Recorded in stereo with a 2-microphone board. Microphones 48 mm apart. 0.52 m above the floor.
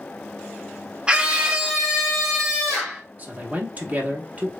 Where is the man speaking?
30° right (ahead or behind), 1.0 m.